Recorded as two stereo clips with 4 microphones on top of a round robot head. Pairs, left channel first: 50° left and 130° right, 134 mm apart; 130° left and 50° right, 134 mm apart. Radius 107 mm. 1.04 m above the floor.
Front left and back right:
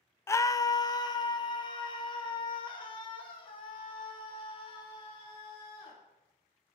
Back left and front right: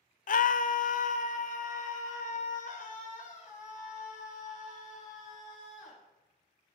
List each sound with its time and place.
0.3 s a scream: 120° left, 0.9 m; by 6.0 s 100° left, 9 m